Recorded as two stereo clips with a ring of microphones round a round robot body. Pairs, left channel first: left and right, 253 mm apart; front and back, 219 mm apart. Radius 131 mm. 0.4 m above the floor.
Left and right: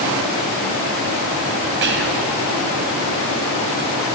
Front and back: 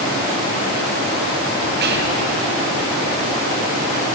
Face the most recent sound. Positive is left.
turn(degrees=-135)